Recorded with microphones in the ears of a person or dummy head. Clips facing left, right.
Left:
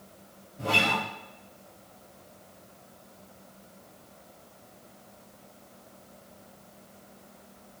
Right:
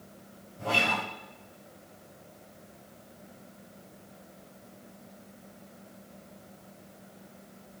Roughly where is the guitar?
Centre.